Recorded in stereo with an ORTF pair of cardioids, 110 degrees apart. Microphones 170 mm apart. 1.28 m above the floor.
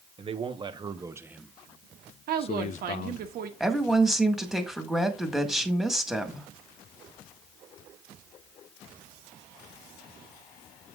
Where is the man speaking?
35° right, 1.5 m; by 3.3 s 65° left, 1.1 m.